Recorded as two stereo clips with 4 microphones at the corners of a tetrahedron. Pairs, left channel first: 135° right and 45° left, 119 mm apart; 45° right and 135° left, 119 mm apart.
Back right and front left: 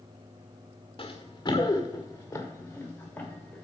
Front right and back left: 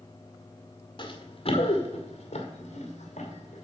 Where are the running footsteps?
90° right, 1.5 m; by 3.6 s 55° right, 2.5 m.